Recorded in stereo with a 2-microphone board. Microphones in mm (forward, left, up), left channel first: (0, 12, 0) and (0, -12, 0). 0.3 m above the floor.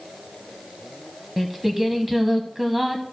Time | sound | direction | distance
1.4 | singing | 10° right (ahead or behind) | 1.0 m